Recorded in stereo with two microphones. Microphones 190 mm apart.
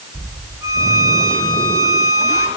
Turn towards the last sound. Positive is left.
turn(degrees=-15)  # may be behind; listen again after turning